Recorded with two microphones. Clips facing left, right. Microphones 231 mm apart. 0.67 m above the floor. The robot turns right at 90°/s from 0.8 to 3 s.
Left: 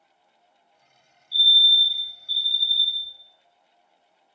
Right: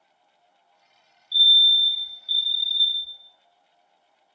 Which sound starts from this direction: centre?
A fire alarm, at 1.3 s.